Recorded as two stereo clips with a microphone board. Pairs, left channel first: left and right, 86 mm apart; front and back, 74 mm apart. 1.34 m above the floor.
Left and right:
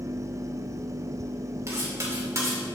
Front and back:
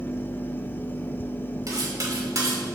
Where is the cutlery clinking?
145° right, 2 m.